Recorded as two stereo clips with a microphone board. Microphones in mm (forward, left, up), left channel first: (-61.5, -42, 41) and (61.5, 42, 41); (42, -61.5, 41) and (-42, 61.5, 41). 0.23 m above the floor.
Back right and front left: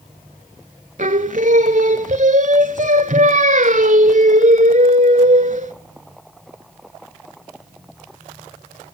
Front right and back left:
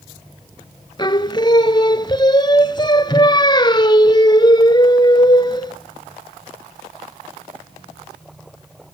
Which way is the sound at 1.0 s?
5° left.